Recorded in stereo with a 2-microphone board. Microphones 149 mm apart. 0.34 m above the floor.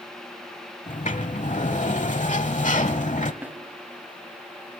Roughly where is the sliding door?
Left.